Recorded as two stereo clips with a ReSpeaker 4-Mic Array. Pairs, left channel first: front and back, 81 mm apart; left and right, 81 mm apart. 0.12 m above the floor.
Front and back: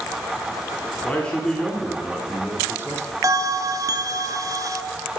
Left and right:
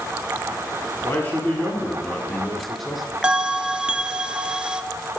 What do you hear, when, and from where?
1.0 s a man speaking: 60° left, 1.2 m; by 3.1 s 175° right, 1.3 m
3.2 s a bell: 160° right, 0.5 m